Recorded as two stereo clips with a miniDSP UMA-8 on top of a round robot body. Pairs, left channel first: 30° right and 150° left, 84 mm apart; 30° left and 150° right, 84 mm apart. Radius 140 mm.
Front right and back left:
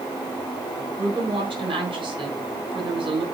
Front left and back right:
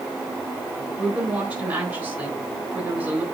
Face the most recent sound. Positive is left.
turn(degrees=135)